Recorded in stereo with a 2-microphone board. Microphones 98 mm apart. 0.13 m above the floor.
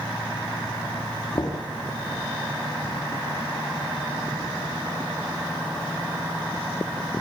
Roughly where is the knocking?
Left.